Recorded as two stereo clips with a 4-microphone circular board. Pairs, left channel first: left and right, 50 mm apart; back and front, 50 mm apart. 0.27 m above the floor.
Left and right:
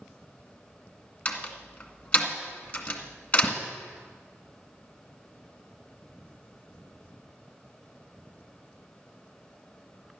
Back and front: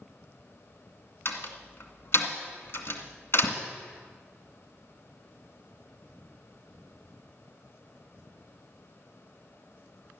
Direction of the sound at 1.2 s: 155° left.